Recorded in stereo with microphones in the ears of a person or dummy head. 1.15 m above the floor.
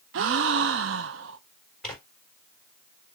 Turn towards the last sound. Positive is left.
turn(degrees=0)  # may be behind; listen again after turning